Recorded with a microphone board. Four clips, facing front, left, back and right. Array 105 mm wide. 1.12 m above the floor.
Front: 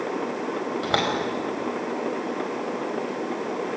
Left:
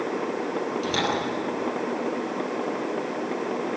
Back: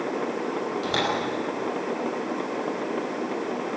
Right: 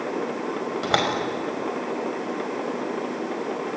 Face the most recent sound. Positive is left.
turn(degrees=-65)